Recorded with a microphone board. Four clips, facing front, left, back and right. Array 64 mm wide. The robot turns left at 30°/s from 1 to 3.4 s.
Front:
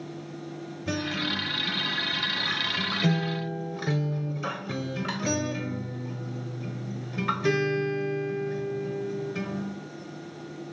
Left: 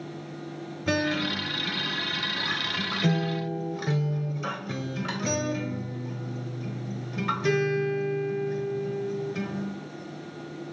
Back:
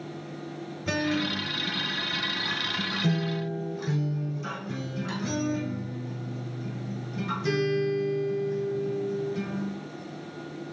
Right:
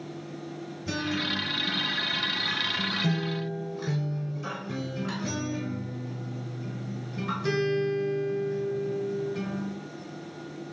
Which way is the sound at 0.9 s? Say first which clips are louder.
Left 4 dB, back 3 dB; 100° left.